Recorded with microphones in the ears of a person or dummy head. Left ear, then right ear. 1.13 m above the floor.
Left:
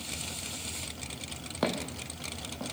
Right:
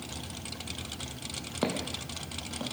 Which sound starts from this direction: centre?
Footsteps, at 1.6 s.